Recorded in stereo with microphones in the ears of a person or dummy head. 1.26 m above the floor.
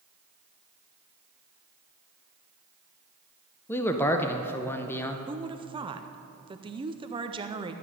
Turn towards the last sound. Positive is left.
turn(degrees=-20)  # may be behind; listen again after turning